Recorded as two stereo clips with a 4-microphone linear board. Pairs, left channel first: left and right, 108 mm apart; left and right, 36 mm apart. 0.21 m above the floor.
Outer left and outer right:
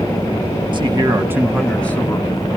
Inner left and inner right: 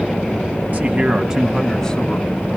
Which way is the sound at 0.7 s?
45° right (ahead or behind).